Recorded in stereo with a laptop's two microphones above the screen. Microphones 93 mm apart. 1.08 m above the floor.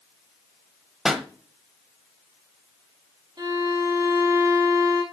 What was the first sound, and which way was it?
A pop, 5° right (ahead or behind).